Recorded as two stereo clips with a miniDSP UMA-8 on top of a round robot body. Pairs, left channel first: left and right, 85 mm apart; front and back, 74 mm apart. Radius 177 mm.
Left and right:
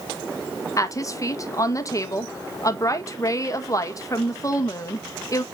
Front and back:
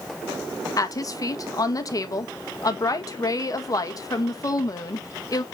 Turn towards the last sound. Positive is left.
turn(degrees=40)